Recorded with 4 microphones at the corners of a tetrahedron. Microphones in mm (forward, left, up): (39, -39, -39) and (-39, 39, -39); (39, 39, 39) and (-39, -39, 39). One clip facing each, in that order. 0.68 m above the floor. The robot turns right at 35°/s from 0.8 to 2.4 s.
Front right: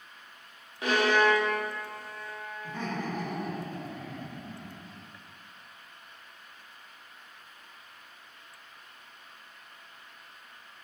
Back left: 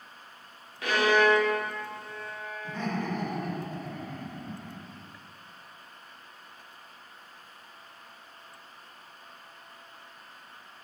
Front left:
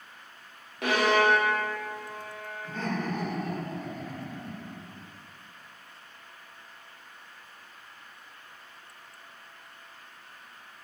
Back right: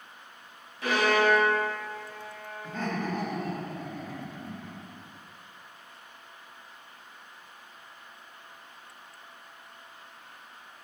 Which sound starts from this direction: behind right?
Laughter, at 2.6 s.